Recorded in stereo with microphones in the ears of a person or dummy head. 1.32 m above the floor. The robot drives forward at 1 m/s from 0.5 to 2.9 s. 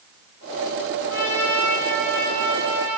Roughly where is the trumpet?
Centre.